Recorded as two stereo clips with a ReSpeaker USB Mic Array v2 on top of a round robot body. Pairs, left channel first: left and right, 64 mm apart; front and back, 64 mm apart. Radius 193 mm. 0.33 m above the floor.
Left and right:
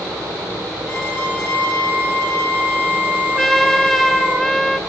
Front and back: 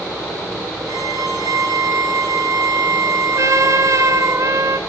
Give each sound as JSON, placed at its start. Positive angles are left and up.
{"t": 0.9, "sound": "a violin", "azimuth_deg": 165, "distance_m": 6.0}
{"t": 3.4, "sound": "a trumpet", "azimuth_deg": 175, "distance_m": 1.4}